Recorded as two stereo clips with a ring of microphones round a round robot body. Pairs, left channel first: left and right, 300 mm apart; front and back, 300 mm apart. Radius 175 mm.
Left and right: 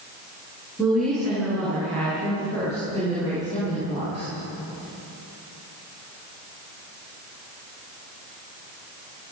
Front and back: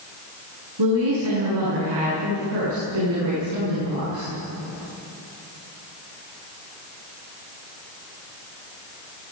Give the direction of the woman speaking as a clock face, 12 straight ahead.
6 o'clock.